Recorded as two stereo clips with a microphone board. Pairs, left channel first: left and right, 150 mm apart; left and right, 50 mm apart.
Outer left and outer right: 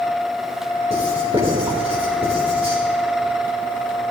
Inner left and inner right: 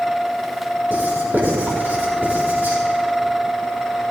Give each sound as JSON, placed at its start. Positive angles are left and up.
{"t": 0.9, "sound": "writing", "side_deg": -40, "distance_m": 4.0}